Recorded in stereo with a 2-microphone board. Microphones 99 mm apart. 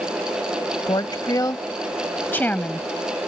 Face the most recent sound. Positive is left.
turn(degrees=10)  # may be behind; listen again after turning